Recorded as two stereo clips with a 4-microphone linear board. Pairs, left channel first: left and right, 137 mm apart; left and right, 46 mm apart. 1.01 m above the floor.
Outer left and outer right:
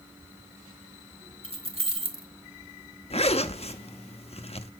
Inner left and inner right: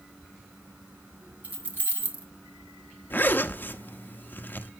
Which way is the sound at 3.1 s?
45° left (ahead or behind).